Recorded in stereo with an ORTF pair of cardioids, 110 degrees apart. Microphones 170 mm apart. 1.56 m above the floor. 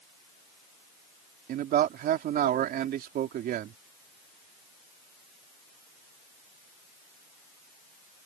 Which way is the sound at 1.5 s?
65° right.